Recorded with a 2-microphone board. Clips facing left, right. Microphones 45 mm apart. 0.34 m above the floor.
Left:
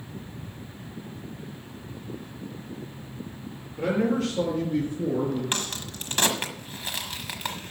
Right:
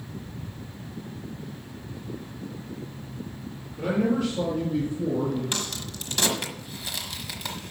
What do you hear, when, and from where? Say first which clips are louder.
3.8 s a man speaking: even; 80° left, 5 m; by 5.4 s 70° left (ahead or behind), 4 m
5.5 s a crack: left 1 dB; 40° left (ahead or behind), 1.3 m